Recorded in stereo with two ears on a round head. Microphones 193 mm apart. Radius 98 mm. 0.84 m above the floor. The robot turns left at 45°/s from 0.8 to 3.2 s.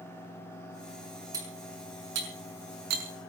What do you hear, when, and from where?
1.3 s cutlery clinking: 15° right (ahead or behind), 6 m; by 3.3 s 80° right, 6 m